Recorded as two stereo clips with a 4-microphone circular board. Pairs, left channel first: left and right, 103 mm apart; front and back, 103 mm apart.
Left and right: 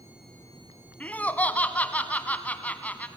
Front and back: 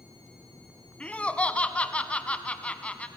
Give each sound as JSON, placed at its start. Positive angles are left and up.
{"t": 1.0, "sound": "laughter", "azimuth_deg": 50, "distance_m": 1.0}